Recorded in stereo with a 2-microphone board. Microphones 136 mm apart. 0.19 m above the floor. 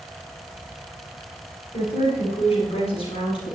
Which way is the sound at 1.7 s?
50° left (ahead or behind).